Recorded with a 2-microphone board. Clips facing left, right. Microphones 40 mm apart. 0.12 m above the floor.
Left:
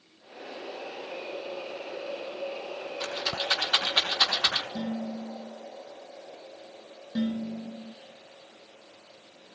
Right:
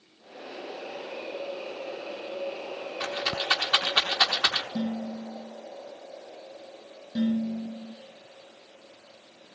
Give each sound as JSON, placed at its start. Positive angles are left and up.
{"t": 3.0, "sound": "a rattle", "side_deg": -15, "distance_m": 7.0}
{"t": 4.8, "sound": "dishes clattering", "side_deg": 0, "distance_m": 9.5}
{"t": 7.2, "sound": "dishes clattering", "side_deg": 20, "distance_m": 6.0}